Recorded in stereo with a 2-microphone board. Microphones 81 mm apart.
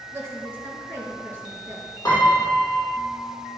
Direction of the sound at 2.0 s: 40° left (ahead or behind).